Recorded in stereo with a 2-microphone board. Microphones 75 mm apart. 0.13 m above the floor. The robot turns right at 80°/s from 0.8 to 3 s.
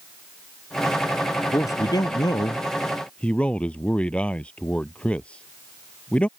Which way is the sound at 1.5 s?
45° left.